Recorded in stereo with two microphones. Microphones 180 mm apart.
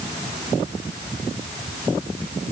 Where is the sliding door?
No sliding door in this recording.